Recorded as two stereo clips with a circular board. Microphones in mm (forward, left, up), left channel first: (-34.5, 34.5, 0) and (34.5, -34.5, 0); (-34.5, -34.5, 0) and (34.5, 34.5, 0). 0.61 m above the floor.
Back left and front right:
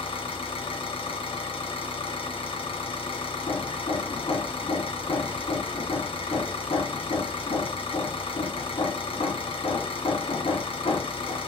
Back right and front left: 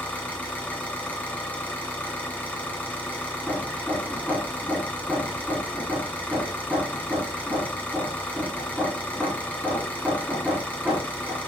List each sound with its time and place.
0.0 s an engine running: 145° left, 2 m
3.5 s hammering: 125° left, 2.5 m